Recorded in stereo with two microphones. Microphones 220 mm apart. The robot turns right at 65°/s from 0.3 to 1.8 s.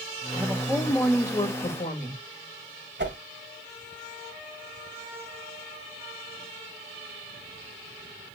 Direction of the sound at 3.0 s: 50° right (ahead or behind).